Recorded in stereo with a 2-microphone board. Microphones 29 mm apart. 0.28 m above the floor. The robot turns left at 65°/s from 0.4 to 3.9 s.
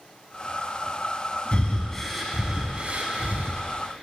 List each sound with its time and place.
1.5 s breathing: 40° left (ahead or behind), 0.6 m; by 3.6 s 75° right (ahead or behind), 0.6 m